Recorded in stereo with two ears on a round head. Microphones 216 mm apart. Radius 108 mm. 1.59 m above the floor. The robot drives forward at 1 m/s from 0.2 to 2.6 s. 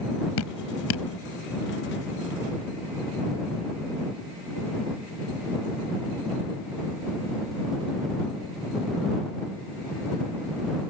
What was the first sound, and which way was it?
Dripping, 70° left (ahead or behind).